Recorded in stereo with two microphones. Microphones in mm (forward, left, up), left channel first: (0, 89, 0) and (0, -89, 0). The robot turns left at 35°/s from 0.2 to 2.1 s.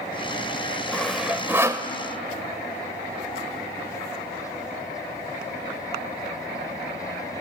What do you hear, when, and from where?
0.9 s sawing: 5° left (ahead or behind), 1.0 m; by 1.9 s 20° right (ahead or behind), 1.0 m